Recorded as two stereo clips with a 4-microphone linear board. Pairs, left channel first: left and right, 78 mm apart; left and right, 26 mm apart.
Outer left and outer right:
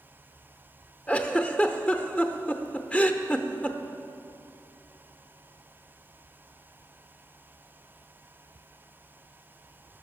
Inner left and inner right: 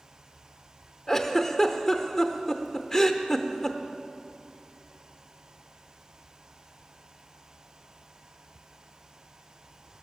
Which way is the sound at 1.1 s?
15° left (ahead or behind).